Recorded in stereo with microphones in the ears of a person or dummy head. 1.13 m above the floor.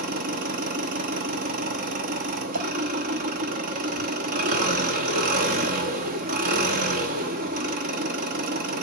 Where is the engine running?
50° right (ahead or behind), 0.9 m.